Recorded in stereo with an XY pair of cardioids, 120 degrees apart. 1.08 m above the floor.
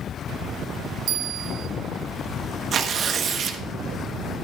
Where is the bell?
65° right, 0.6 m.